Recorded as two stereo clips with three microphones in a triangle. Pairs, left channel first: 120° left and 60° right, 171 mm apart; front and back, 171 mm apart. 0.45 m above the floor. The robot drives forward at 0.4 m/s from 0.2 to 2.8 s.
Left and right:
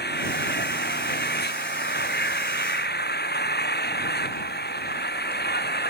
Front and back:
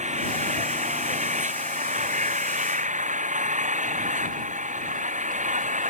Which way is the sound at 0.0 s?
135° left.